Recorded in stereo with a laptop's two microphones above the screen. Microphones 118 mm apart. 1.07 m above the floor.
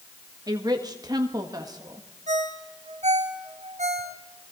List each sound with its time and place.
0.5 s a woman speaking: 35° right (ahead or behind), 1.6 m
2.3 s a ringtone: 70° right (ahead or behind), 1.5 m